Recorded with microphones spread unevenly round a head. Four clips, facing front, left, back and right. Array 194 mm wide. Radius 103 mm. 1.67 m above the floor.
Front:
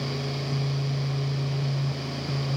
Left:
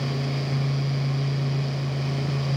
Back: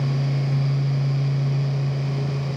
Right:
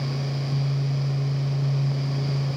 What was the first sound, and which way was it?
Only background noise.